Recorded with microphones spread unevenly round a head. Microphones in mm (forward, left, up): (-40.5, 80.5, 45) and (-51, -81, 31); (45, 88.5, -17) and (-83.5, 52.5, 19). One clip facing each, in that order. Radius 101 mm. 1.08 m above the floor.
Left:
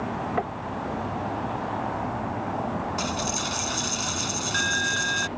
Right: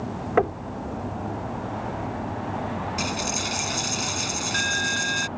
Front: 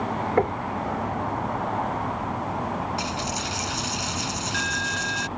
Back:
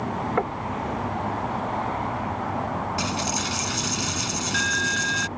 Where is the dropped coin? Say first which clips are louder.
Even, back 2 dB; 170° right.